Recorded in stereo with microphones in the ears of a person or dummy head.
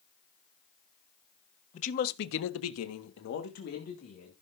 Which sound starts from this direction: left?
A man speaking, at 1.7 s.